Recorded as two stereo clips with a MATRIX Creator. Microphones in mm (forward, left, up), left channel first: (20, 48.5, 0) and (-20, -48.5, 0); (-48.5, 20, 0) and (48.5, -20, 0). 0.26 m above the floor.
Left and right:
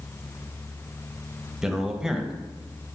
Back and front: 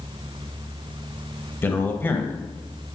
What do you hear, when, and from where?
1.6 s a man speaking: 175° left, 1.0 m